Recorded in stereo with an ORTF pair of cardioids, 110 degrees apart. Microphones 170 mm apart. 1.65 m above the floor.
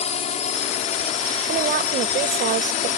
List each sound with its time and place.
0.0 s a drone: 40° left; by 3.0 s 45° left
1.5 s a woman speaking: 60° right